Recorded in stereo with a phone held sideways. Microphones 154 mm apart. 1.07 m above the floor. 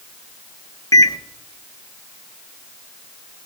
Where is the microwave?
25° left (ahead or behind), 0.7 m.